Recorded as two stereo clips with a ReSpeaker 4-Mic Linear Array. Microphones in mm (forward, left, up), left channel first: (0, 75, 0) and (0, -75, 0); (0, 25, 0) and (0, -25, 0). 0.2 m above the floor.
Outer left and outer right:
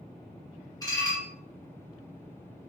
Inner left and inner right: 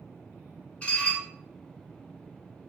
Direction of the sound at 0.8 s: 25° left (ahead or behind).